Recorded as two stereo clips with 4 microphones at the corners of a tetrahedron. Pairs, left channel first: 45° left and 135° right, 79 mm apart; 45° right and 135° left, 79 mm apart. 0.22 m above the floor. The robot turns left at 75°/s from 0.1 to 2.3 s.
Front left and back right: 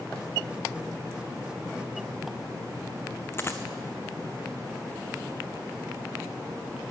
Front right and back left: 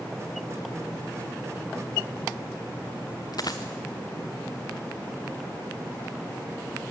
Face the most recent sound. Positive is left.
turn(degrees=-15)